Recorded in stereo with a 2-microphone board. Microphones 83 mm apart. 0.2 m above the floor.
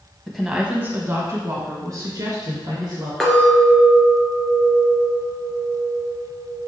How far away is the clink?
About 2 m.